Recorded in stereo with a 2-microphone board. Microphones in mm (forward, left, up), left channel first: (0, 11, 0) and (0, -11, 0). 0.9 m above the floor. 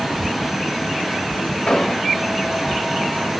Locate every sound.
1.7 s an explosion: 35° left (ahead or behind), 0.9 m